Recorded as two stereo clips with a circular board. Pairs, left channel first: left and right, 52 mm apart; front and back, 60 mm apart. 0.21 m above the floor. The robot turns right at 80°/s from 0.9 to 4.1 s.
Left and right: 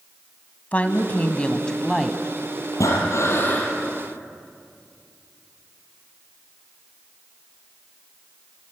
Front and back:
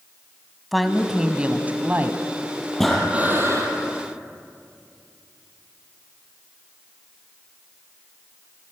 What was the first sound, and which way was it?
A woman speaking, 90° left.